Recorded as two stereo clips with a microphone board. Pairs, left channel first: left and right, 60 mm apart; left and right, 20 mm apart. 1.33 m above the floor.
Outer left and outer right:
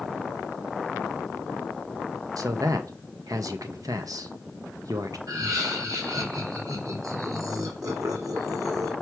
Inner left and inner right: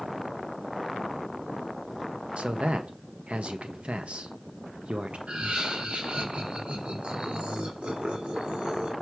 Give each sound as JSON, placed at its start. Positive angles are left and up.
{"t": 2.4, "sound": "a man speaking", "side_deg": -80, "distance_m": 1.4}
{"t": 5.3, "sound": "laughter", "side_deg": -80, "distance_m": 4.5}